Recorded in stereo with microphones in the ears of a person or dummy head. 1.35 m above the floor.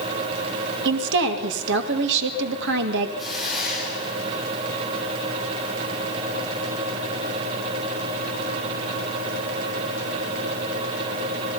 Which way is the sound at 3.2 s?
5° right (ahead or behind).